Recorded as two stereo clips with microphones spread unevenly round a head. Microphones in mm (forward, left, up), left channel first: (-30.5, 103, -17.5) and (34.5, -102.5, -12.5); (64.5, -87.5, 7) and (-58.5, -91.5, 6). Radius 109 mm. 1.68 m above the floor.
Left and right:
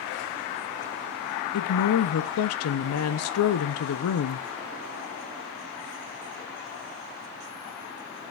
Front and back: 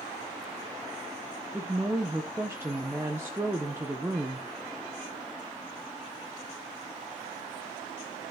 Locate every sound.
1.5 s a woman speaking: 105° left, 0.8 m